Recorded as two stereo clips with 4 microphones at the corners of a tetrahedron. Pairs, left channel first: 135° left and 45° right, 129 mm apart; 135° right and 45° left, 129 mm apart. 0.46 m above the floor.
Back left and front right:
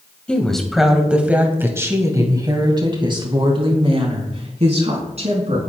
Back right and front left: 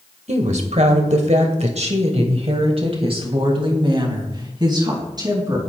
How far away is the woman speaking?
About 2.5 m.